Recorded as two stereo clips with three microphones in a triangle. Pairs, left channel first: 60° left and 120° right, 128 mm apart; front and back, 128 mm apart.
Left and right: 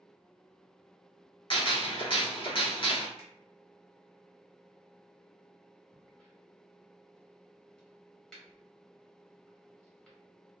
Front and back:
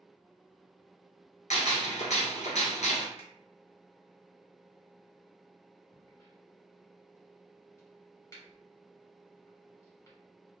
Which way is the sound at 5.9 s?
15° right.